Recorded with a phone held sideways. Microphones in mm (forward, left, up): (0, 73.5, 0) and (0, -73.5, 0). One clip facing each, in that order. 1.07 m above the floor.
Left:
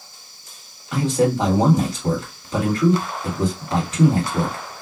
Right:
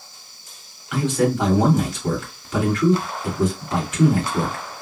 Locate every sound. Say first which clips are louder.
0.9 s a man speaking: left 1 dB; 35° left (ahead or behind), 1.6 m